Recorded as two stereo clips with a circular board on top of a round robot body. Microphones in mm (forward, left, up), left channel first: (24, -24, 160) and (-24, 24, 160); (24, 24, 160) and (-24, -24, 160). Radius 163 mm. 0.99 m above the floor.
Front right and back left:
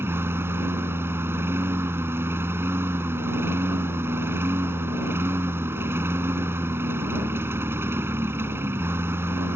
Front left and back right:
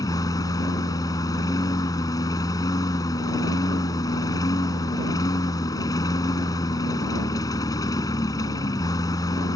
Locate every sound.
0.0 s a lawn mower: 75° left